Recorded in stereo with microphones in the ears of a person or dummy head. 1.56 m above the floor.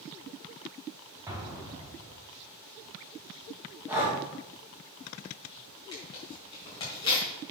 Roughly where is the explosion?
Centre.